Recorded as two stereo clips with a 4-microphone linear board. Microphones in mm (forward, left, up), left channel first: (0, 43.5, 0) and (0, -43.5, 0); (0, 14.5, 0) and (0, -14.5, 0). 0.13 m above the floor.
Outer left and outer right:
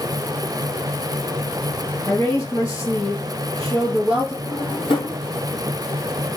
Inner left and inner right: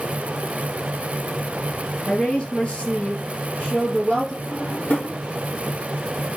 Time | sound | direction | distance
2.1 | a woman speaking | 45° left (ahead or behind) | 3 m
4.5 | a drawer | 75° left (ahead or behind) | 1.8 m